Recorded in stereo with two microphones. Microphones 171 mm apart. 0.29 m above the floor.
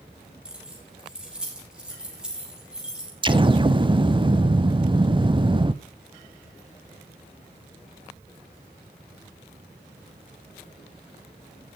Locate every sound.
0.5 s keys jangling: 5° right (ahead or behind), 5.5 m
3.2 s an explosion: 30° right (ahead or behind), 0.6 m